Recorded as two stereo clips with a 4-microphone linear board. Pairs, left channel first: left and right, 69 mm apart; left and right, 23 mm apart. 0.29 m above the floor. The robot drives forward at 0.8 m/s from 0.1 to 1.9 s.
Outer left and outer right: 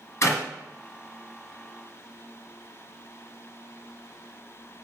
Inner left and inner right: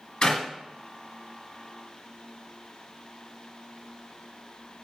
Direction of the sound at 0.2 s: 50° left (ahead or behind).